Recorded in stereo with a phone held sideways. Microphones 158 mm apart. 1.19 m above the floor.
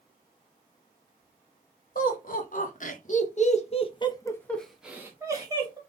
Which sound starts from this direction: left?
Laughter, at 1.9 s.